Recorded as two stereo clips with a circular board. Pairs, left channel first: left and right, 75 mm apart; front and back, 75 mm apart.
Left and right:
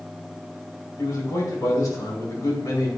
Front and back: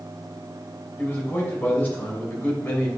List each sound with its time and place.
1.0 s a man speaking: 60° left, 3 m